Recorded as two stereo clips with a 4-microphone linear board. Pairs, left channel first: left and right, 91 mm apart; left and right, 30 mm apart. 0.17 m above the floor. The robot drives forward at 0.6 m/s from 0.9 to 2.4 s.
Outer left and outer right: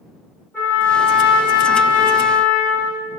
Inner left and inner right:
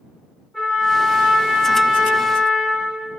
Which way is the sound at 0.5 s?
20° left (ahead or behind).